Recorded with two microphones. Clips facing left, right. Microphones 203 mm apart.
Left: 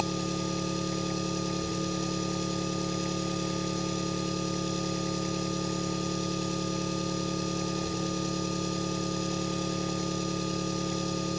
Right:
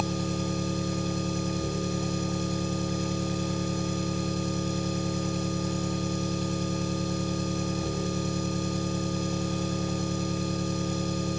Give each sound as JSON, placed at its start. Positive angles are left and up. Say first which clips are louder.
{"t": 0.0, "sound": "an engine running", "louder": "right 1 dB", "side_deg": -55, "distance_m": 5.5}